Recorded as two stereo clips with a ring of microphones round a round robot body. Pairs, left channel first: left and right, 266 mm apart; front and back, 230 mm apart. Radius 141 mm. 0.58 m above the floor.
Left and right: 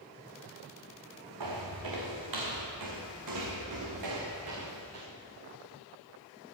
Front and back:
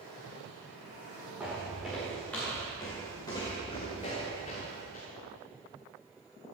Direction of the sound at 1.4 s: 95° right.